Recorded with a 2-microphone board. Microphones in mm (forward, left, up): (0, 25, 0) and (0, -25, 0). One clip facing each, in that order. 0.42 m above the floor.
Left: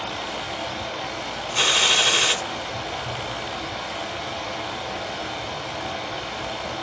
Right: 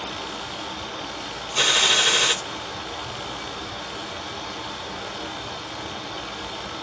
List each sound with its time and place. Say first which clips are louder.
0.0 s running water: left 2 dB; 70° left (ahead or behind), 3.5 m
1.6 s a gunshot: even; 10° left (ahead or behind), 3.5 m